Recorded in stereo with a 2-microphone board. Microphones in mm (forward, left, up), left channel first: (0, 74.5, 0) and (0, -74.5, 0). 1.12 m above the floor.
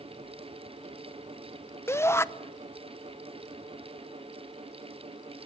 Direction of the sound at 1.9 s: 15° left (ahead or behind).